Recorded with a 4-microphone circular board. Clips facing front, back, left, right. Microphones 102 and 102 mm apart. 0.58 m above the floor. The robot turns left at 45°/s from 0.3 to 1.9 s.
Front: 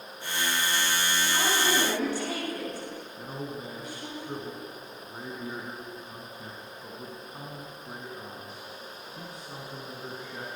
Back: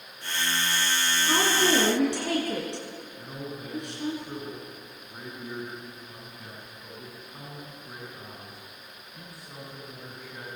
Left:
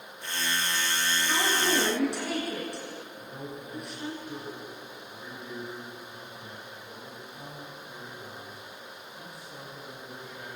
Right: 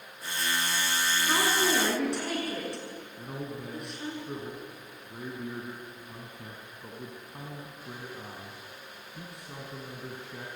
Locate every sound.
1.2 s a woman speaking: 150° right, 8 m; by 4.2 s straight behind, 8 m
3.2 s a man speaking: 70° right, 5 m